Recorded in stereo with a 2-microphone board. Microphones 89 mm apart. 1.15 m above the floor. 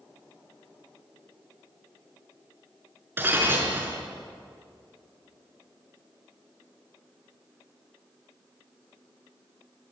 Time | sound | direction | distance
3.2 | breaking glass | 25° right (ahead or behind) | 5 m